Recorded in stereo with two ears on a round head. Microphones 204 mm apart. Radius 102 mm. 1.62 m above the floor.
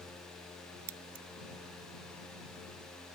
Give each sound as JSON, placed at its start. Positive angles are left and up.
{"t": 0.9, "sound": "scissors", "side_deg": -65}